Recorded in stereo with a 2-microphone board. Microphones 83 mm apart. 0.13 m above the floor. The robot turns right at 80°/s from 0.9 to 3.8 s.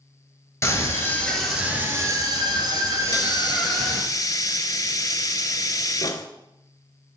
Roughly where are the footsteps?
I don't hear footsteps.